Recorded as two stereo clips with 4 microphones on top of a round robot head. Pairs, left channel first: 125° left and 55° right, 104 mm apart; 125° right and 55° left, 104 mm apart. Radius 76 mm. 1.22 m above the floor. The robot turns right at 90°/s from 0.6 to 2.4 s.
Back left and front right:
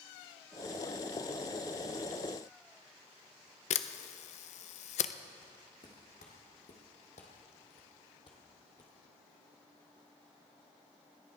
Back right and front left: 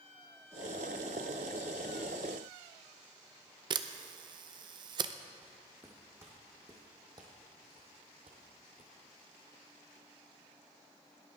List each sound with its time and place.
3.7 s a camera shutter: 105° left, 0.5 m
5.4 s footsteps: 130° left, 3 m; by 8.9 s 75° left, 2 m